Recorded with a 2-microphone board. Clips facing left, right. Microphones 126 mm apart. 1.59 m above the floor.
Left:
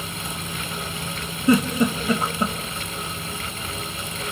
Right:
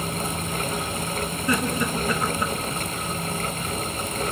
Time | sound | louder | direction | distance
1.5 | a giggle | left 7 dB | 30° left (ahead or behind) | 3 m